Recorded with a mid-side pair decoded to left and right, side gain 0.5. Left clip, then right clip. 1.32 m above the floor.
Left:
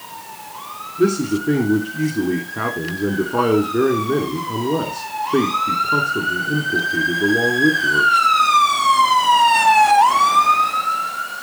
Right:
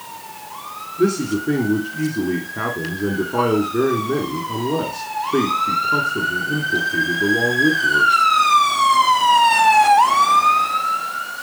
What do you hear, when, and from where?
1.0 s a man speaking: 5° left, 3 m